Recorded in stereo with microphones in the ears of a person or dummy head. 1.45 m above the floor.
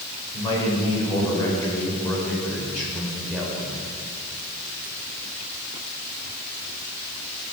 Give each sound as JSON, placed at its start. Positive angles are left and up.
{"t": 0.3, "sound": "a man speaking", "side_deg": 25, "distance_m": 5.0}